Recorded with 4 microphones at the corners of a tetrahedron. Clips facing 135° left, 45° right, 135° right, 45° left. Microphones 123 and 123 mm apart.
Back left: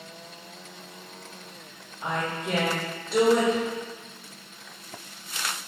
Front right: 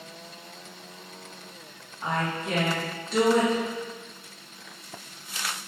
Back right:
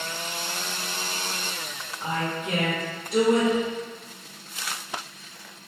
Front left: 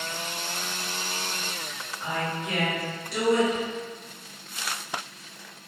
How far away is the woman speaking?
About 1.9 m.